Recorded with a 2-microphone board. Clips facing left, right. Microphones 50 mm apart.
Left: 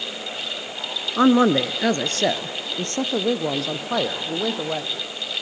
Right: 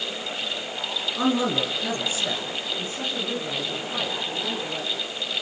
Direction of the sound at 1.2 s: 40° left (ahead or behind).